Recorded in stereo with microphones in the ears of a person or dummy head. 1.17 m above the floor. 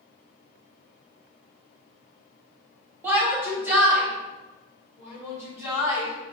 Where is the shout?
10° right (ahead or behind), 1.9 m; by 6.3 s 15° right (ahead or behind), 3.5 m.